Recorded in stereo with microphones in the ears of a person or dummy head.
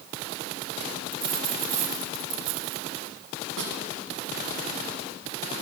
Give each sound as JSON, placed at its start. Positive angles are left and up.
{"t": 1.1, "sound": "a dropped coin", "side_deg": -45, "distance_m": 2.0}
{"t": 3.6, "sound": "a snare drum", "side_deg": -85, "distance_m": 6.5}